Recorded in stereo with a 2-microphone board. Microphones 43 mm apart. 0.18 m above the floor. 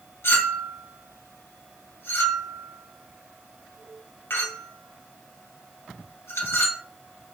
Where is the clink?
65° left (ahead or behind), 1.5 m.